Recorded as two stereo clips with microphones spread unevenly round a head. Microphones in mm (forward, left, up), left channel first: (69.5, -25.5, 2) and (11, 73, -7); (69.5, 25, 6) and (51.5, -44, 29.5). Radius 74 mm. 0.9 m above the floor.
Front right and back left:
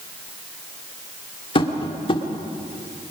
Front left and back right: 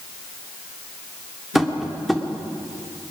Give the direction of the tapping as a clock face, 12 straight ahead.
1 o'clock.